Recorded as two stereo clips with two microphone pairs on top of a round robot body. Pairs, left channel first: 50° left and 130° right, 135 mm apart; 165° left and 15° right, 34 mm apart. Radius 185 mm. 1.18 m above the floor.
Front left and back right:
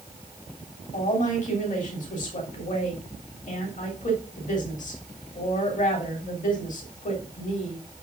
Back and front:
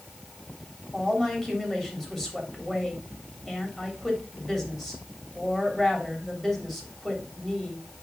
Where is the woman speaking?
80° left, 3.5 m.